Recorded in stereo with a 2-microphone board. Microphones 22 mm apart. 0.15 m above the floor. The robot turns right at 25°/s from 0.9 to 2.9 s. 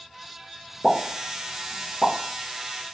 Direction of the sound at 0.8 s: 10° right (ahead or behind).